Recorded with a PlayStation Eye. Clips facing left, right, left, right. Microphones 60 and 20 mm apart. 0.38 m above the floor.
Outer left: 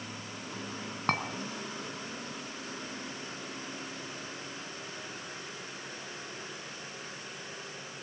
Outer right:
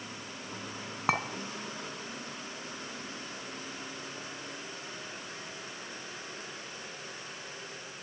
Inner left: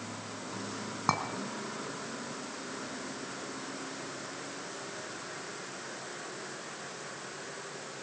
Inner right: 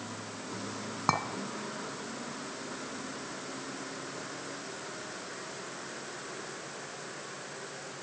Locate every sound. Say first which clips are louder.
1.1 s a clink: outer right 2 dB, inner right 1 dB; 5° right (ahead or behind), 2 m